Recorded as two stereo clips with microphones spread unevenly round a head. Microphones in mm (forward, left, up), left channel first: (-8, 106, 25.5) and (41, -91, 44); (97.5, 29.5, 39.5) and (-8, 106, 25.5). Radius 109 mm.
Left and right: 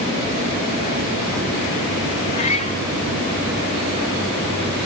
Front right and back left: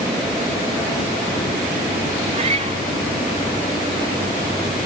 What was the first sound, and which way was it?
A cat meowing, 155° left.